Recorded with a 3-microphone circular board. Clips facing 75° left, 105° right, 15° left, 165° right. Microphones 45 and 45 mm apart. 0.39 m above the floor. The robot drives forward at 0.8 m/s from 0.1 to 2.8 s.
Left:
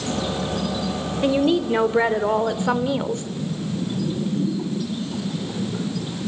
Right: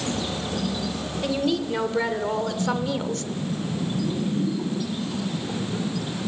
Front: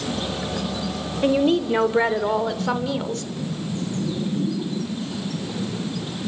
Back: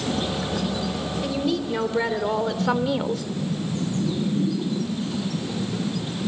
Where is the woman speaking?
25° left, 1.6 m; by 3.2 s 125° left, 1.3 m.